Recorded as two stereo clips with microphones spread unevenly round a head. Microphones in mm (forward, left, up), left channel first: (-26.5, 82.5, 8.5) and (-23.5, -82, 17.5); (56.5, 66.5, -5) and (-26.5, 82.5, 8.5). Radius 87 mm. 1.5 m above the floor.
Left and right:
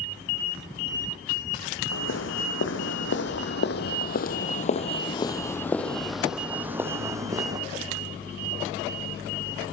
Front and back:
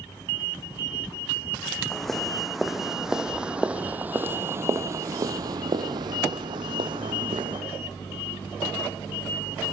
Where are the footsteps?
80° left, 4.5 m; by 7.6 s 155° right, 4 m.